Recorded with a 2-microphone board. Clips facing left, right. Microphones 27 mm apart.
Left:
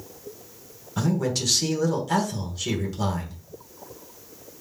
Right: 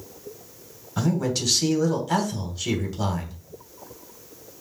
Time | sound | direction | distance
1.0 | a man speaking | 5° right (ahead or behind) | 1.2 m